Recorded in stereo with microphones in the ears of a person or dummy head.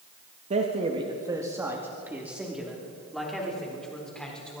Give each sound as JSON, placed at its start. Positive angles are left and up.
{"t": 0.5, "sound": "a man speaking", "side_deg": -30, "distance_m": 1.8}